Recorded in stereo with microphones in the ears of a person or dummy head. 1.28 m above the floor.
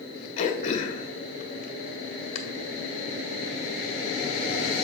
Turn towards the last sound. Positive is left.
turn(degrees=40)  # may be behind; listen again after turning